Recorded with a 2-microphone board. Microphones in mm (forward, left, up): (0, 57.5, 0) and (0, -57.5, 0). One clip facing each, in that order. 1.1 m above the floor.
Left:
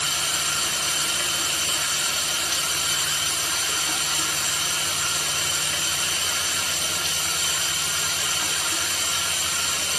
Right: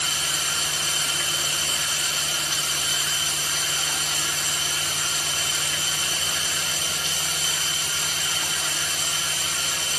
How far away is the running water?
About 1.5 m.